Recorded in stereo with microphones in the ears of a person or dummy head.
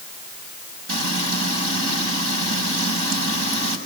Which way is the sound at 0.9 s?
60° right (ahead or behind).